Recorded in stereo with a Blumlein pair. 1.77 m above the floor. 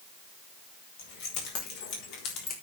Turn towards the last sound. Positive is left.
turn(degrees=40)